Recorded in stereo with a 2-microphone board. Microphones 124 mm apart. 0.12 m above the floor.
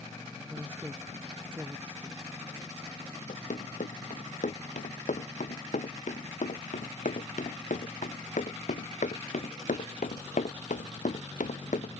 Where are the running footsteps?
85° left; by 11.9 s 90° left.